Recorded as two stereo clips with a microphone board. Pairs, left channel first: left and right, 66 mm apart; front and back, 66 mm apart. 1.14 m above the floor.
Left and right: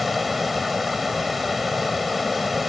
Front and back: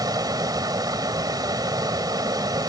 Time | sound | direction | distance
0.0 | running water | straight behind | ?